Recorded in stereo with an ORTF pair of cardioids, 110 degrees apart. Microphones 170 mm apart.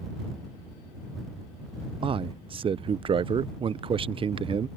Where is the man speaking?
30° right.